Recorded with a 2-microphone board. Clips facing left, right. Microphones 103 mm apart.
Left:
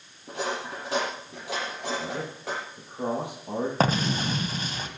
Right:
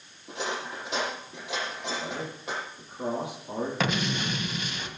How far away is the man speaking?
About 8.5 m.